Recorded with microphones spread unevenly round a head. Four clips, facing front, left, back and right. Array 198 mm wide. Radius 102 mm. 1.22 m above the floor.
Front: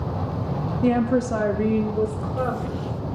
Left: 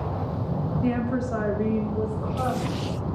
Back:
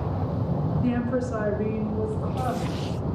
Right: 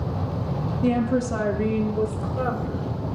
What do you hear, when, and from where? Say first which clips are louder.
0.8 s a woman speaking: right 5 dB, front 7 dB; 5° left, 1.1 m; by 2.9 s 20° right, 2.5 m